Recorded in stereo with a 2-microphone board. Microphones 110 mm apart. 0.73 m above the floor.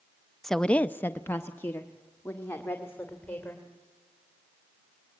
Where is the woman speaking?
5° left (ahead or behind), 0.5 m; by 3.7 s 20° left (ahead or behind), 2.5 m.